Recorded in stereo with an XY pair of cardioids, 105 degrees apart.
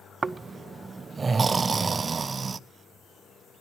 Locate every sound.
0.2 s snoring: 40° right, 0.6 m